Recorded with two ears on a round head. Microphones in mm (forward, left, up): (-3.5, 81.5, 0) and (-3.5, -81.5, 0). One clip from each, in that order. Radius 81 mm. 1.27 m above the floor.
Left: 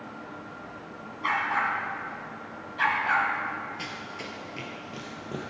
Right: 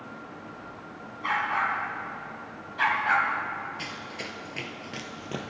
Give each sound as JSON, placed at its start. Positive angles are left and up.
{"t": 1.2, "sound": "a dog barking", "side_deg": 20, "distance_m": 3.5}
{"t": 3.8, "sound": "running footsteps", "side_deg": -5, "distance_m": 1.7}